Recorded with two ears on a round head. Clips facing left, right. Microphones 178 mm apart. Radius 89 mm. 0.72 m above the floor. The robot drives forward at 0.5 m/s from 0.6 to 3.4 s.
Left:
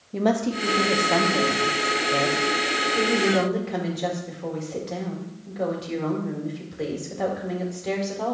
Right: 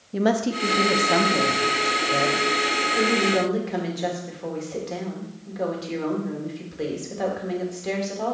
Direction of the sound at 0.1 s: 5° right (ahead or behind).